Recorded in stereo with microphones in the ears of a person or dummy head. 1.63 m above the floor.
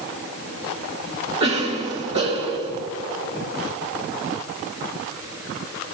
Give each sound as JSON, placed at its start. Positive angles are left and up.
{"t": 1.4, "sound": "a cough", "side_deg": -30, "distance_m": 1.5}